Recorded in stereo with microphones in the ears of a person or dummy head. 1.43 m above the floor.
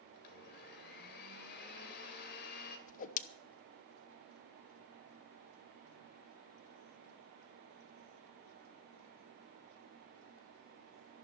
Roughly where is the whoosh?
Left.